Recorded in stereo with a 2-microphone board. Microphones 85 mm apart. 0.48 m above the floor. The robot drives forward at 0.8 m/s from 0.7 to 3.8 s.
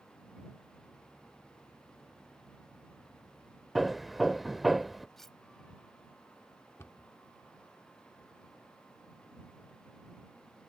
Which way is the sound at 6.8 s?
30° left (ahead or behind).